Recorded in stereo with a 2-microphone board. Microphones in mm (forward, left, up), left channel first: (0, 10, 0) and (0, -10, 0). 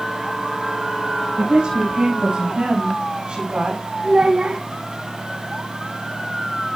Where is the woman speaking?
80° right, 6.5 m; by 3.8 s 65° right (ahead or behind), 6 m.